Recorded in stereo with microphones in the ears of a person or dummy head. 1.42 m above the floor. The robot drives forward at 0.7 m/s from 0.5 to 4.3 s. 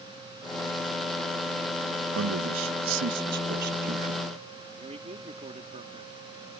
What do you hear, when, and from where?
2.1 s a man speaking: 85° right; by 4.3 s 45° right (ahead or behind)
4.7 s a man speaking: 30° right (ahead or behind)